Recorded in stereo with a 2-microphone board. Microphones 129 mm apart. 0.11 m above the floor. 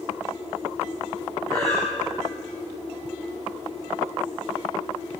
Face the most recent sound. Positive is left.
turn(degrees=25)  # may be behind; listen again after turning